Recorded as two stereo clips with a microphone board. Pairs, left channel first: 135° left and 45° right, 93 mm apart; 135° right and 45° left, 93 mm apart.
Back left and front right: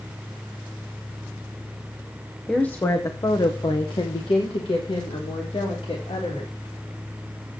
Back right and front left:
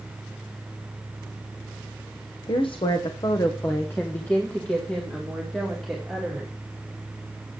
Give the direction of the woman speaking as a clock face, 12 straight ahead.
5 o'clock.